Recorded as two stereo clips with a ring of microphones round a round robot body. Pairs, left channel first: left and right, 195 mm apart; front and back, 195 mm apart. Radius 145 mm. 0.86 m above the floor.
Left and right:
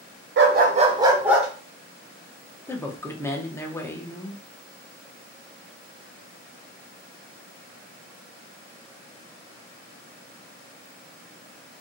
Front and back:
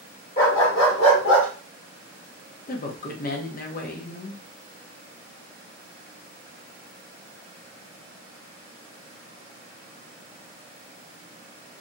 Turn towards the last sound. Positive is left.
turn(degrees=15)